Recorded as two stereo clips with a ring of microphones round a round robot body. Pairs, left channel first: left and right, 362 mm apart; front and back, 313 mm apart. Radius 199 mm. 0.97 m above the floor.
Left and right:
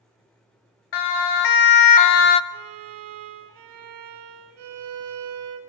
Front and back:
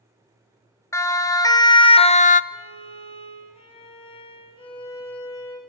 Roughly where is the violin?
Right.